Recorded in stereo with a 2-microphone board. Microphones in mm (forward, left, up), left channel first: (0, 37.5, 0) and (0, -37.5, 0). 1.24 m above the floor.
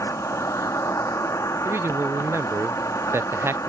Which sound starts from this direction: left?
An insect, at 0.0 s.